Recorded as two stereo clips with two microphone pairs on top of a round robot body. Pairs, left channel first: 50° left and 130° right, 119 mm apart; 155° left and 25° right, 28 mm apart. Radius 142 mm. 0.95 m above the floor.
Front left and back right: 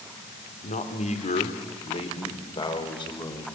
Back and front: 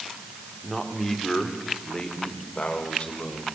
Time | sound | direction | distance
0.6 | a man speaking | 70° left | 3 m